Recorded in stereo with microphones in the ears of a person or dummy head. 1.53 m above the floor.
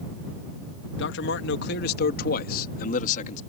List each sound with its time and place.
1.0 s a man speaking: 75° left (ahead or behind); by 3.4 s 50° left (ahead or behind)